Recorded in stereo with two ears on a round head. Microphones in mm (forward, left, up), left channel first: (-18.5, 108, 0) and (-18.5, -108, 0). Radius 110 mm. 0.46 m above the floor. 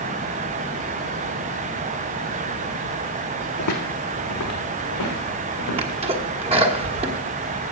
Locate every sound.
3.6 s footsteps: 65° left (ahead or behind), 1.7 m; by 6.0 s 75° left (ahead or behind), 4 m
5.8 s a sneeze: 25° right (ahead or behind), 1.3 m